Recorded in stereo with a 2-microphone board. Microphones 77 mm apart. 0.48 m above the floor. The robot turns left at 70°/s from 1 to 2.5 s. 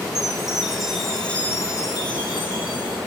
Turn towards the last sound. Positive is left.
turn(degrees=80)